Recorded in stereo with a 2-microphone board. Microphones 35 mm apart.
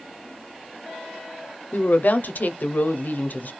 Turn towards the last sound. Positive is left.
turn(degrees=60)  # may be behind; listen again after turning